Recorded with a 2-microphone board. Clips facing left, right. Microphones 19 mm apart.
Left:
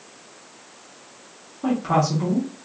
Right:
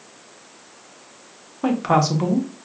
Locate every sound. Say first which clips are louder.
1.6 s a woman speaking: right 2 dB; 40° right (ahead or behind), 1.0 m